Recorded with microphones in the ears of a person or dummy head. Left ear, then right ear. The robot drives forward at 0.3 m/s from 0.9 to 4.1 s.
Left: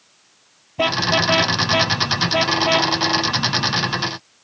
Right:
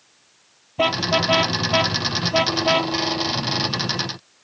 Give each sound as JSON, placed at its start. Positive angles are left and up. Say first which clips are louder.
{"t": 0.8, "sound": "a car horn", "louder": "left 2 dB", "side_deg": -5}